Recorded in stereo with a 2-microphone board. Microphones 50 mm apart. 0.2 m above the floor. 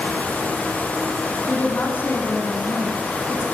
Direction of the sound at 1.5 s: 50° left (ahead or behind).